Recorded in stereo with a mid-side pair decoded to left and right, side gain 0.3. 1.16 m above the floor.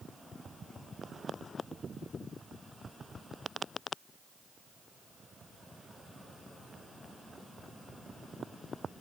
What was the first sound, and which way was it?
Only background noise.